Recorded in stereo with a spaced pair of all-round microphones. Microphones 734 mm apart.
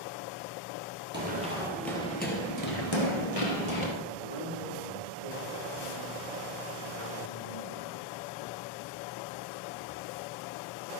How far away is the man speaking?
About 3 m.